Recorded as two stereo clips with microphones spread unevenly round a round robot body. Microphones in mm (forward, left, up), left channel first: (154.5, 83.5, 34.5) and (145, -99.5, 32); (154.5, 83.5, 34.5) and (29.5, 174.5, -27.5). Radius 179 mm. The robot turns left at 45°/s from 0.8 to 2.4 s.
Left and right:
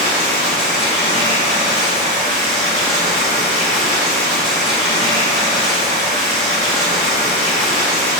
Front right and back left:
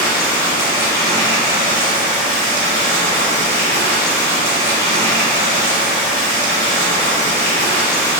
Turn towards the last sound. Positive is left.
turn(degrees=135)